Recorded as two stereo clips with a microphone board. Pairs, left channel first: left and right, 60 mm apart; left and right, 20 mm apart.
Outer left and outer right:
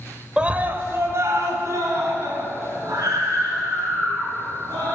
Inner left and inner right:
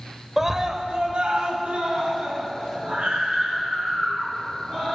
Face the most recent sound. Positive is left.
turn(degrees=-70)  # may be behind; listen again after turning